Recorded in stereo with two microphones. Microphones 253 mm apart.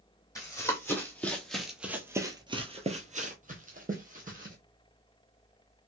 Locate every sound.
0.3 s running footsteps: 10° left (ahead or behind), 1.3 m; by 4.5 s 30° right (ahead or behind), 1.3 m